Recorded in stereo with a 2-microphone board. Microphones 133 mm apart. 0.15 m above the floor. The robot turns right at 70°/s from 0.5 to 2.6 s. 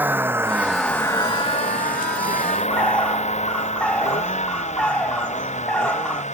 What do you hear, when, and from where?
0.0 s a vehicle: 15° right (ahead or behind); by 6.3 s 60° left (ahead or behind)
2.7 s a bird: 10° left (ahead or behind)